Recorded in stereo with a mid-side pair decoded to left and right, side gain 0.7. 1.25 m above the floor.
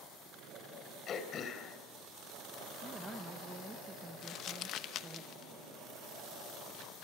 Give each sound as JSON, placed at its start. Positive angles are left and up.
{"t": 1.1, "sound": "throat clearing", "azimuth_deg": 40, "distance_m": 3.5}
{"t": 2.8, "sound": "a woman speaking", "azimuth_deg": -10, "distance_m": 1.6}
{"t": 4.2, "sound": "crumpling", "azimuth_deg": 50, "distance_m": 0.9}